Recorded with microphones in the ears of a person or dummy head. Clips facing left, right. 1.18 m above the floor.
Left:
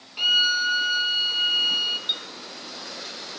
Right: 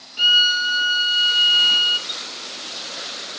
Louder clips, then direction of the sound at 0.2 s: Right 3 dB; 10° right (ahead or behind).